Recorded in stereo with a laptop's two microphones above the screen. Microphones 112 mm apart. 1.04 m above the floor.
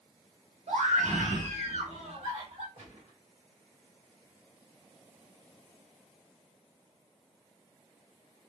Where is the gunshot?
70° right (ahead or behind), 1.1 m.